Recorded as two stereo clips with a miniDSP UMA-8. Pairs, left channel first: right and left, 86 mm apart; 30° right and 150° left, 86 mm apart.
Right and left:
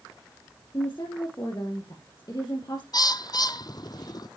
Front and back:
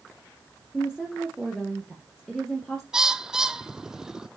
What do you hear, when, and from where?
0.7 s a woman speaking: 115° right, 2.5 m
2.9 s a bird: 125° right, 0.6 m